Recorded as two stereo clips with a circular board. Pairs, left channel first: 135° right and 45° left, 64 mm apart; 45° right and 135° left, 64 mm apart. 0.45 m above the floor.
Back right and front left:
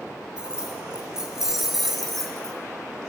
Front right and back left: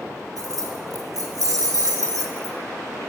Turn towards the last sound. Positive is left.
turn(degrees=145)